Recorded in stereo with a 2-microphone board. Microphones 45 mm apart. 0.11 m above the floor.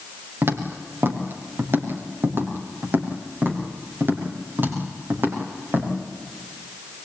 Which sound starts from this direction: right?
Footsteps, at 0.4 s.